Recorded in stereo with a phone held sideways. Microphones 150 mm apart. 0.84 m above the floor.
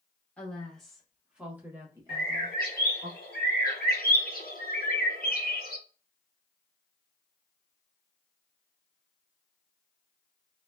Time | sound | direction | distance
0.4 | a woman speaking | 10° left (ahead or behind) | 1.3 m
2.1 | a bird | 85° left | 0.7 m